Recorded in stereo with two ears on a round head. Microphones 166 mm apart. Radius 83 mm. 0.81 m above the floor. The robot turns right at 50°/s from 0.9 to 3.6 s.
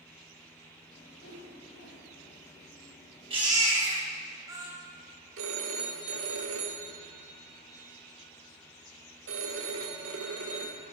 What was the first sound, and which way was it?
A whoosh, 55° left.